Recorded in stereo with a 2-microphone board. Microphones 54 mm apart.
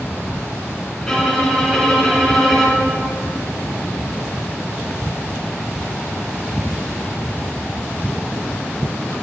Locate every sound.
1.0 s a violin: 10° left (ahead or behind), 1.5 m